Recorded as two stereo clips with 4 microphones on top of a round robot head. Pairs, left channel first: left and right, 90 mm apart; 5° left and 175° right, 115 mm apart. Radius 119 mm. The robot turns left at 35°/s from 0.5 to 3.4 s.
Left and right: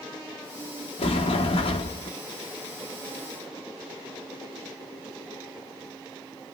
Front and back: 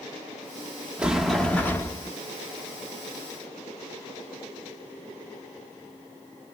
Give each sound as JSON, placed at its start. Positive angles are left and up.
{"t": 1.0, "sound": "a sliding door", "azimuth_deg": 105, "distance_m": 0.8}